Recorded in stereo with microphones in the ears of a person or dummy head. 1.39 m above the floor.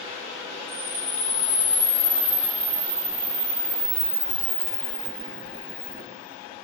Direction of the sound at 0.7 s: 55° left (ahead or behind).